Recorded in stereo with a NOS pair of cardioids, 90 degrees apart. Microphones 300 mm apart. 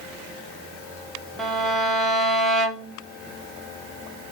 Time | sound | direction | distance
1.4 | a violin | straight ahead | 0.6 m